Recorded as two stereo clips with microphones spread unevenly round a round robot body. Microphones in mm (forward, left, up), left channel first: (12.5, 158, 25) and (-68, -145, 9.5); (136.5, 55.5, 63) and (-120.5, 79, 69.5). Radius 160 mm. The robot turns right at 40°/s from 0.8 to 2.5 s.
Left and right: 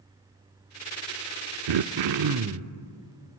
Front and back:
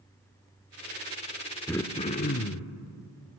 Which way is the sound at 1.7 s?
90° right.